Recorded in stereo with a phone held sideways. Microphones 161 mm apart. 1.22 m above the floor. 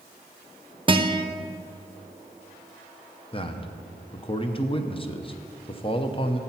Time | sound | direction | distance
0.9 | a guitar | 30° right (ahead or behind) | 0.5 m
3.3 | a man speaking | 35° left (ahead or behind) | 0.7 m